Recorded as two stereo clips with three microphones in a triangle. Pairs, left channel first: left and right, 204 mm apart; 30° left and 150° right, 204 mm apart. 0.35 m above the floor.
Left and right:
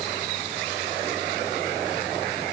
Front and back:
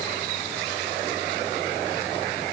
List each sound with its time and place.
Only background noise.